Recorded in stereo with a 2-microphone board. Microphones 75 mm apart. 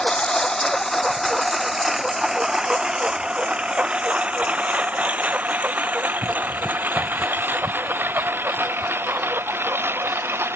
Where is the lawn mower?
10° left (ahead or behind); by 10.6 s 30° right (ahead or behind).